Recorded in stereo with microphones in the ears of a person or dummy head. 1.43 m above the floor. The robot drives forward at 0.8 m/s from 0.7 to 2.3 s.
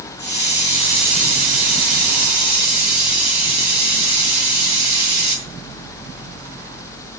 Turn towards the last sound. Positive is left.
turn(degrees=30)  # may be behind; listen again after turning